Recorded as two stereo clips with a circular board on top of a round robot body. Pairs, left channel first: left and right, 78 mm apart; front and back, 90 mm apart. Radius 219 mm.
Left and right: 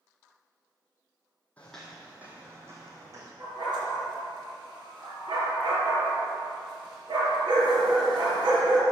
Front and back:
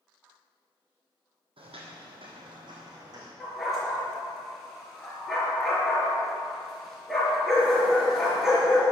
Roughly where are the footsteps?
Behind.